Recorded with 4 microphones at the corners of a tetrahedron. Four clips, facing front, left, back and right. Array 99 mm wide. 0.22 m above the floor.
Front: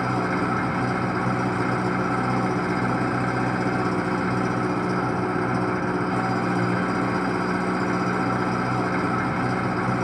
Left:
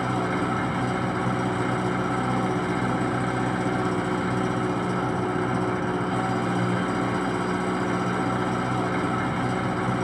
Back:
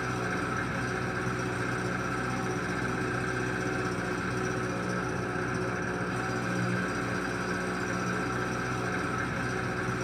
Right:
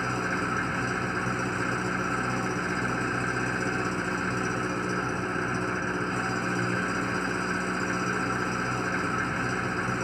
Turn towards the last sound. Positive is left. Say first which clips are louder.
# left 4 dB, front 8 dB
turn(degrees=25)